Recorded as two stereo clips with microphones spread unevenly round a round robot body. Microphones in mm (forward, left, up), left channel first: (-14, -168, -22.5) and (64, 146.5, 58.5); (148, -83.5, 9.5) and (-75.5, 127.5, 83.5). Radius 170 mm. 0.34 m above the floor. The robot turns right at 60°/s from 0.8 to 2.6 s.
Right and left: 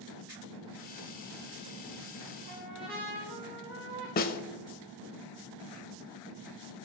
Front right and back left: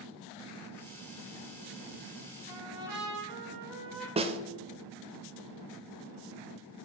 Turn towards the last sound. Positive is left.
turn(degrees=-145)